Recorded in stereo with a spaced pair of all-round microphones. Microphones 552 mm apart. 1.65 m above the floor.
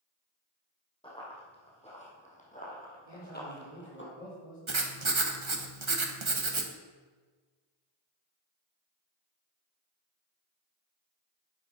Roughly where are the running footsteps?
Centre.